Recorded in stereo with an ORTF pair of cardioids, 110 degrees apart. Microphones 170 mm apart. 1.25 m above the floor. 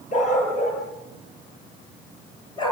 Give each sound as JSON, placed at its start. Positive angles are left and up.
{"t": 0.1, "sound": "a dog barking", "azimuth_deg": 45, "distance_m": 9.0}